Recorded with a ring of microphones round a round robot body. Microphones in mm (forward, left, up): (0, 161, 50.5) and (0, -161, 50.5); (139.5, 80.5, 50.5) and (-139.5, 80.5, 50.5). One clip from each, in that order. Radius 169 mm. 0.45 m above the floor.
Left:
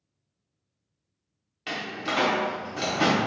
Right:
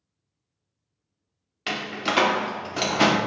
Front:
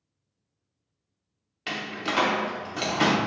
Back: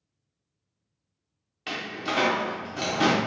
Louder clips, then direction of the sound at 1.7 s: Right 3 dB, front 1 dB; 70° right.